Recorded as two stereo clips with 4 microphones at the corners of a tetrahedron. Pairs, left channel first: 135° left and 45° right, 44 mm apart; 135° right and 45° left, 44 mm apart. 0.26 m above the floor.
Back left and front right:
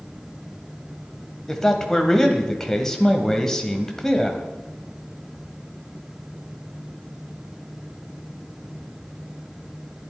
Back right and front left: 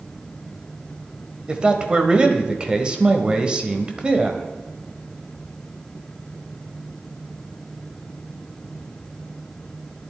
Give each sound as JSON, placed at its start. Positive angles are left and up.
{"t": 1.5, "sound": "a man speaking", "azimuth_deg": 70, "distance_m": 1.1}